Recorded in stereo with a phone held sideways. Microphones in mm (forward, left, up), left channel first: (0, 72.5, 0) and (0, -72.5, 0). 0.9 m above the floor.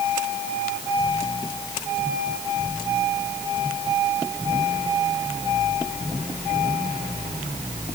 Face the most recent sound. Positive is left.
No sound to turn to.